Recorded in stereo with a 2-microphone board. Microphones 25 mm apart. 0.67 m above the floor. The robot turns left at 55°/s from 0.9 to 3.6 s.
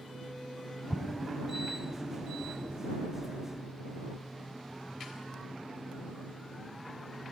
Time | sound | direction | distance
0.9 | an explosion | 45° left (ahead or behind) | ?